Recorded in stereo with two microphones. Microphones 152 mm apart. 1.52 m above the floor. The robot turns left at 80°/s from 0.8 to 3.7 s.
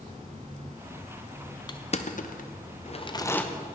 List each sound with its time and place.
1.7 s crushing: 30° left (ahead or behind), 0.5 m; by 3.4 s 10° left (ahead or behind), 0.5 m